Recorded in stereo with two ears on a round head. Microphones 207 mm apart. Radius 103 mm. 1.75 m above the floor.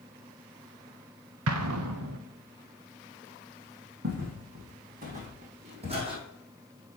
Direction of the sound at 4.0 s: 50° right (ahead or behind).